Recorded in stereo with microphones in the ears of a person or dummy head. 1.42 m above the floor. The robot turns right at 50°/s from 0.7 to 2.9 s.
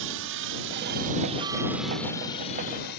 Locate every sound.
0.0 s a helicopter: 65° right (ahead or behind); by 3.0 s 50° left (ahead or behind)